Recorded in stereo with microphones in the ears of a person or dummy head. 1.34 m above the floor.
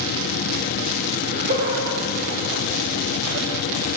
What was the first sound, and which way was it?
Laughter, 45° right (ahead or behind).